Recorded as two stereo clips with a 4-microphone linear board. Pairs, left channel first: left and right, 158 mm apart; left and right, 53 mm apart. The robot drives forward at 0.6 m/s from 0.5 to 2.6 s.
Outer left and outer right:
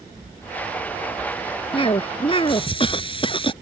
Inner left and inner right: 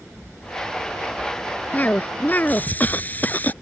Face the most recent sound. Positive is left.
turn(degrees=30)  # may be behind; listen again after turning